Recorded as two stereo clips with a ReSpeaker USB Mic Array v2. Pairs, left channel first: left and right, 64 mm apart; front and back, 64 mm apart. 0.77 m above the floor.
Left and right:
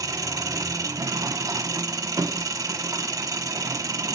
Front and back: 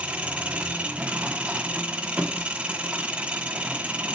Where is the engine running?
110° right, 0.9 m.